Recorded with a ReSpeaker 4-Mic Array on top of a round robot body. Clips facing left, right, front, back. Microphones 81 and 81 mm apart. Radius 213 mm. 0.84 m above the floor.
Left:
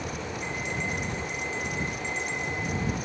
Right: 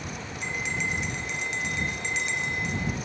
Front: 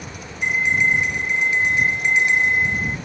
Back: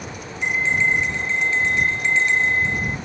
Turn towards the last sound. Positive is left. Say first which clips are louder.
# right 3 dB, front 1 dB
turn(degrees=-75)